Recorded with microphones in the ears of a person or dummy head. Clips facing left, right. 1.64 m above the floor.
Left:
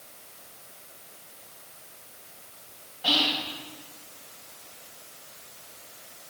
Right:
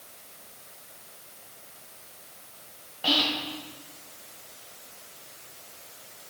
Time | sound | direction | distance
3.0 | whispering | 60° right (ahead or behind) | 1.7 m